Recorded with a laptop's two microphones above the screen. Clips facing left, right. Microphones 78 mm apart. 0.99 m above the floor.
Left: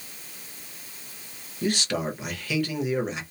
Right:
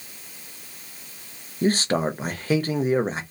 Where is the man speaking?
40° right (ahead or behind), 0.6 m.